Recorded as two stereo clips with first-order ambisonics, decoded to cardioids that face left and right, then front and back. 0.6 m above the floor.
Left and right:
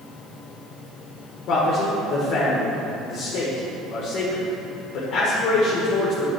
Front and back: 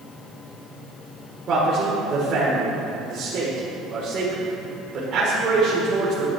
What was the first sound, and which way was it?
A man speaking, 120° left.